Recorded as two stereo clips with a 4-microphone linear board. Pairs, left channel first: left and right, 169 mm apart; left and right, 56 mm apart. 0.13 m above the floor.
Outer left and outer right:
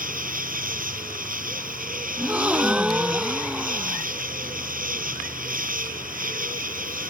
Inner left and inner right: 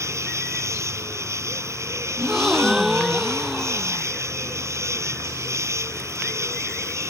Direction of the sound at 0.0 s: 55° right (ahead or behind).